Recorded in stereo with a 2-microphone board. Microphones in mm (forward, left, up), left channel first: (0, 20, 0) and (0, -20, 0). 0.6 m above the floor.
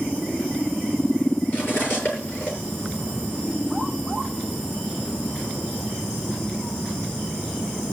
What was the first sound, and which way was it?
Cutlery clinking, 40° left (ahead or behind).